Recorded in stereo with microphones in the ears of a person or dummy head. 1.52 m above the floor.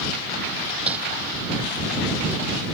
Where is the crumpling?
10° right (ahead or behind).